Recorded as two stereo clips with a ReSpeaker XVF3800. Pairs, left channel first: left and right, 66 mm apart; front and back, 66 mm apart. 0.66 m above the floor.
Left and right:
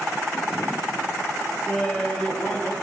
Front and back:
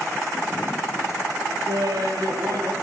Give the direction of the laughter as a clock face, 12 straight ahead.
6 o'clock.